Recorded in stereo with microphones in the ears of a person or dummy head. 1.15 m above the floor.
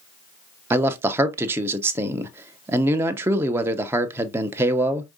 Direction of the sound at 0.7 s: 10° right (ahead or behind).